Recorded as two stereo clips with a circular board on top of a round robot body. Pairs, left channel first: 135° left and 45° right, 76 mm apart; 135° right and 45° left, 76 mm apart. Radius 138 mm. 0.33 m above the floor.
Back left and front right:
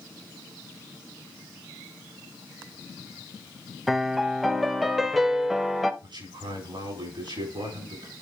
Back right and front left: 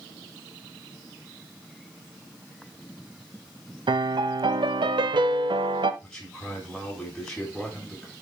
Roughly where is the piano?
Ahead left.